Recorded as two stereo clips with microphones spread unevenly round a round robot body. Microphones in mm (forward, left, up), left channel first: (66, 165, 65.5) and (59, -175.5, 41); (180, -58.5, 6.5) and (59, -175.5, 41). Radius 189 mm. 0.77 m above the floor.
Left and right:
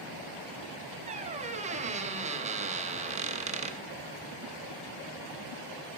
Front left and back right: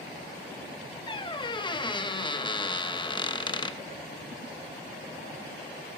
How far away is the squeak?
About 0.8 m.